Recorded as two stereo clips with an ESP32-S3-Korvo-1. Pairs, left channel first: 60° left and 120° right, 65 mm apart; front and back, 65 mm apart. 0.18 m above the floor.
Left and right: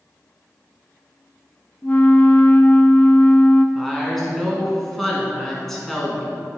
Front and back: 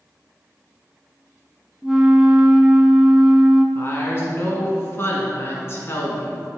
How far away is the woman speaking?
About 1.8 m.